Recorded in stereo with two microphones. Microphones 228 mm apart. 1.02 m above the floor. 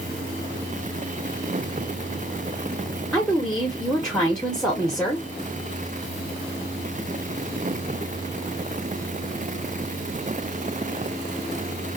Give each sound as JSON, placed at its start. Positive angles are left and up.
{"t": 3.1, "sound": "a woman speaking", "side_deg": 0, "distance_m": 0.8}